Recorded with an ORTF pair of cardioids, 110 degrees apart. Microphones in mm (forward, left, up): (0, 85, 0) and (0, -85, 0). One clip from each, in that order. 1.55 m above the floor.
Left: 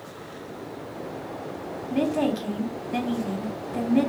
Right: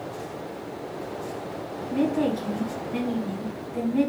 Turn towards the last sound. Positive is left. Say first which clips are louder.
# even
turn(degrees=45)